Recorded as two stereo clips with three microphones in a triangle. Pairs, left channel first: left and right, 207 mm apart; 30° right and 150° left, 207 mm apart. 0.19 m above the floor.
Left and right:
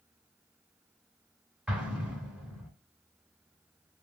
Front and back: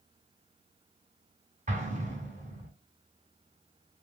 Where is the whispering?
I don't hear whispering.